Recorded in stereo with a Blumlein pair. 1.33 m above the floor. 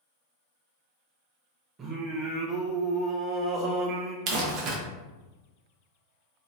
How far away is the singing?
About 0.6 m.